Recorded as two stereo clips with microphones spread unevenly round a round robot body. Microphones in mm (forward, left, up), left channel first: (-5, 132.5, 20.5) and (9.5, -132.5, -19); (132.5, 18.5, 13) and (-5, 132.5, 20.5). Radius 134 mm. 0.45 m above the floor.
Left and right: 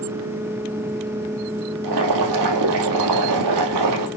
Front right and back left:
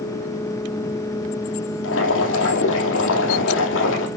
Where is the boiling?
70° right, 3 m.